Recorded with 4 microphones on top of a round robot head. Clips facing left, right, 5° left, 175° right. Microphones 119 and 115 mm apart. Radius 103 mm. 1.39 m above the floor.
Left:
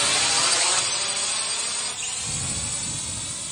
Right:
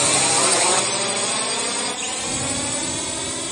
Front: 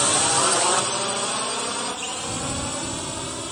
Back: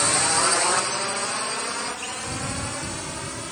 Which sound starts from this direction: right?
A drone, at 0.0 s.